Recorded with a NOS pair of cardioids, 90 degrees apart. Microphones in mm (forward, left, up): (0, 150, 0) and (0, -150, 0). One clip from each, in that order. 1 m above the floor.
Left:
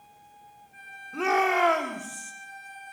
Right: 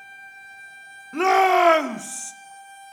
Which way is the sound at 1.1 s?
45° right.